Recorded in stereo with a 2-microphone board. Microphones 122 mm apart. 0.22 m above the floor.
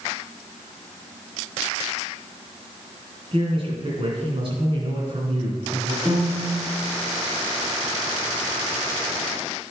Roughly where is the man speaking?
Right.